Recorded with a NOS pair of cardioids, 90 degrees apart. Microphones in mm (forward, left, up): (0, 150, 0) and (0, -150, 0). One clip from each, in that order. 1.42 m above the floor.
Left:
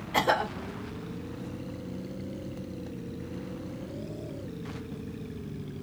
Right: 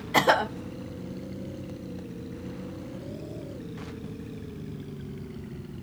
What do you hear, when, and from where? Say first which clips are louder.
0.1 s a cough: right 4 dB; 25° right, 0.9 m